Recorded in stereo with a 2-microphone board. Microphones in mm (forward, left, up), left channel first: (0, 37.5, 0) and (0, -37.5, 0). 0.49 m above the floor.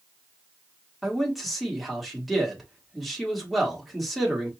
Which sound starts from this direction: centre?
A man speaking, at 1.0 s.